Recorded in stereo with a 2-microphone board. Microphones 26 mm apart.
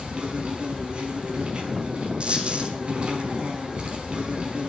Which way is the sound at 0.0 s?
40° right (ahead or behind).